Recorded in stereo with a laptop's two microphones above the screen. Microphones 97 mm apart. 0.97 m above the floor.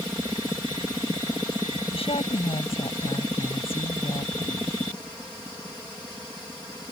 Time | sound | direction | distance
1.9 | a woman speaking | 85° left | ?